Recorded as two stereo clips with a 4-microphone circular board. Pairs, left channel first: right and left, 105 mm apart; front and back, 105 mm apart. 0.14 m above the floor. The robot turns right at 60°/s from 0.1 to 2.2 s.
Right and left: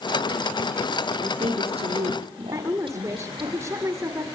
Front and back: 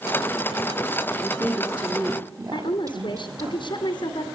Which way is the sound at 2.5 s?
30° left.